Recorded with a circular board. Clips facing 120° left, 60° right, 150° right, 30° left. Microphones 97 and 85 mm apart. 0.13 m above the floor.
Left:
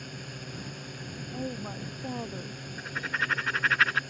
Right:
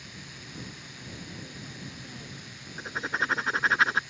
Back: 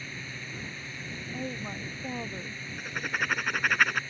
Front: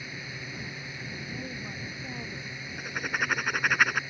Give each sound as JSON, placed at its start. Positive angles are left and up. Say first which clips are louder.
{"t": 0.0, "sound": "a drone", "louder": "left 5 dB, front 1 dB", "azimuth_deg": 105}
{"t": 1.3, "sound": "a woman speaking", "louder": "left 8 dB, back 6 dB", "azimuth_deg": 145}
{"t": 2.8, "sound": "writing", "louder": "right 2 dB, front 1 dB", "azimuth_deg": -45}